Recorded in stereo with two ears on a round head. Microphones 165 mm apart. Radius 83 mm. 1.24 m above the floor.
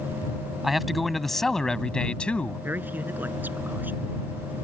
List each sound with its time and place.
0.6 s a man speaking: centre (ahead or behind); by 2.6 s 5° left (ahead or behind)
2.6 s a man speaking: 10° right (ahead or behind)